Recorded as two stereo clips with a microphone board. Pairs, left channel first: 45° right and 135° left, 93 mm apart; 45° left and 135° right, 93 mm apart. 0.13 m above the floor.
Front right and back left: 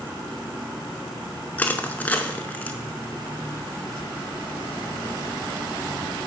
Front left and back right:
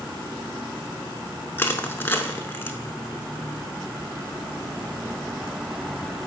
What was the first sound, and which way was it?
Crushing, 5° left.